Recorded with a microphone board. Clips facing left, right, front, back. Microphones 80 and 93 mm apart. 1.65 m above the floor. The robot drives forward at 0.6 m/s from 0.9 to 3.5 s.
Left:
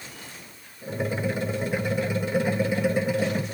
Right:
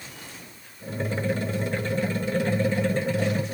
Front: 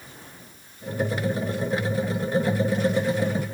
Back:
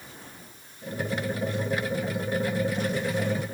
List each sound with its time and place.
Only background noise.